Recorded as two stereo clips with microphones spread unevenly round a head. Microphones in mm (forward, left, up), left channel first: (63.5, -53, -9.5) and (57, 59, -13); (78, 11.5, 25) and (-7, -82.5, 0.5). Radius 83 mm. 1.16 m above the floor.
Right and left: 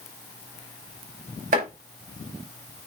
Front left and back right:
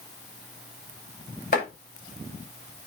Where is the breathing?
No breathing in this recording.